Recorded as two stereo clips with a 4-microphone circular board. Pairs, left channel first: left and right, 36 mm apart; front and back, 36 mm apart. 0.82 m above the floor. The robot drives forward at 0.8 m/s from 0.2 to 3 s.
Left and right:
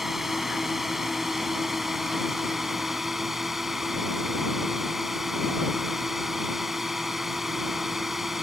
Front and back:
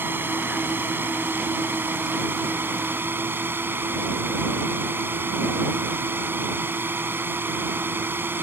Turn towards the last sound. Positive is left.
turn(degrees=-175)